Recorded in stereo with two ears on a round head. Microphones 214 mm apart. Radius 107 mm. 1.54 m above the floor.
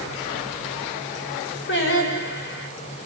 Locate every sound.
1.7 s singing: 50° left (ahead or behind), 5.5 m